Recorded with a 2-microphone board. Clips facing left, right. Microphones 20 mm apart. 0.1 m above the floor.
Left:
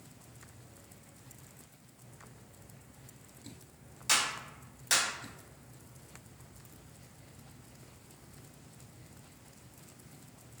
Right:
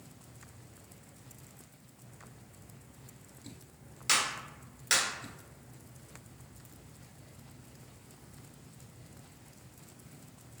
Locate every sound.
4.1 s a clap: 20° right (ahead or behind), 1.4 m